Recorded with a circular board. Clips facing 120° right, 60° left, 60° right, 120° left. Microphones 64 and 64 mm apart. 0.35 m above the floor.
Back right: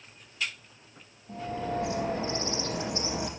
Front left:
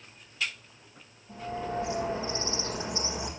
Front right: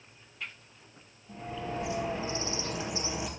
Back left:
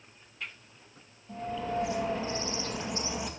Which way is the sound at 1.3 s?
145° right.